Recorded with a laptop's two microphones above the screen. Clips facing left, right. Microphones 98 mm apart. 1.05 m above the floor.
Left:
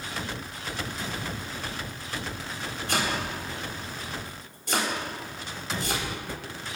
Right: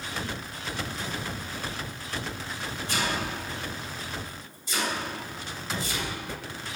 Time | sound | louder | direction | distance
2.9 | chopping | left 1 dB | 60° left (ahead or behind) | 3.5 m